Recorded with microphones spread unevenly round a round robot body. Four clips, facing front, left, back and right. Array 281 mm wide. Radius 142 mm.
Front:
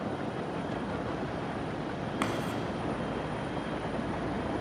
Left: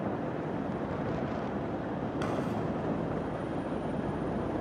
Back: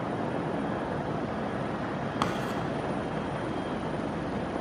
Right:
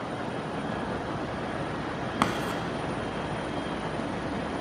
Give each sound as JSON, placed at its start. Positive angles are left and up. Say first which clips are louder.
{"t": 2.2, "sound": "writing", "louder": "right 6 dB, back 1 dB", "azimuth_deg": -100, "distance_m": 0.8}